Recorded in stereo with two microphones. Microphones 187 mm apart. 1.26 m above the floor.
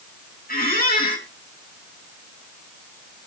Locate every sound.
0.5 s a squeak: 50° left (ahead or behind), 5.5 m